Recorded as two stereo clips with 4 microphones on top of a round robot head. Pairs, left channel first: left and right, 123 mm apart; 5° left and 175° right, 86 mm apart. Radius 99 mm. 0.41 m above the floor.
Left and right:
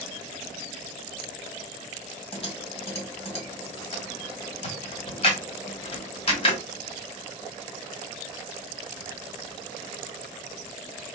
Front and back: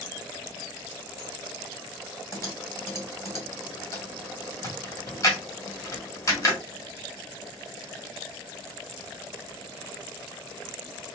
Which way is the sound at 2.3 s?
55° left.